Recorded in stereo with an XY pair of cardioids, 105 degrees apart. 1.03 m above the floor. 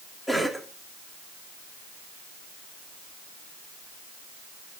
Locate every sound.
0.3 s a cough: 5° left, 2.5 m